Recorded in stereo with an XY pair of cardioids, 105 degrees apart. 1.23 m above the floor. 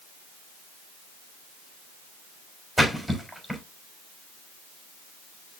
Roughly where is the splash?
Ahead.